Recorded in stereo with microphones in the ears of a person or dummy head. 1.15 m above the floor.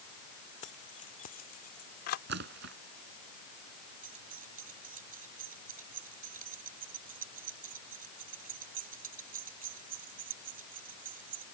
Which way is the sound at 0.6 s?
40° left (ahead or behind).